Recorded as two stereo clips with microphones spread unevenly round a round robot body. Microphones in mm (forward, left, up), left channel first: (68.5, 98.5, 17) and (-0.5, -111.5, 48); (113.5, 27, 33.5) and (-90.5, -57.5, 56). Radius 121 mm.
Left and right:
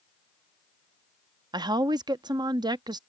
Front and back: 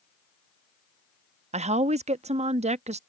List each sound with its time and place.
1.5 s a woman speaking: 170° right